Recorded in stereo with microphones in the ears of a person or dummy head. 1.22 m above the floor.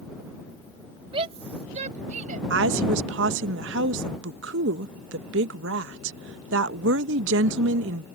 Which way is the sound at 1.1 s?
30° right (ahead or behind).